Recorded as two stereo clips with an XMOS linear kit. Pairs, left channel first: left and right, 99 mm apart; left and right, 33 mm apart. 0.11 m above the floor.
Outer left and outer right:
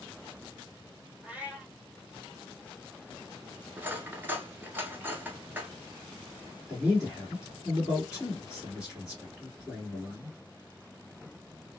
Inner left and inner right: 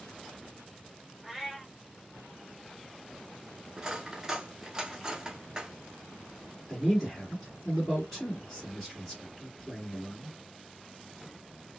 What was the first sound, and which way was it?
A cat meowing, 15° right (ahead or behind).